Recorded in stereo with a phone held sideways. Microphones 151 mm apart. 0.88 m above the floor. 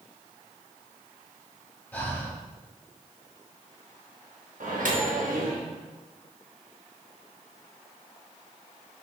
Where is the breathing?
15° left (ahead or behind), 0.7 m.